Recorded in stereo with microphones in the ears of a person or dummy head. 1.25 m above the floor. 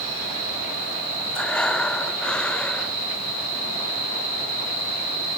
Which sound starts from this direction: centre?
Breathing, at 1.3 s.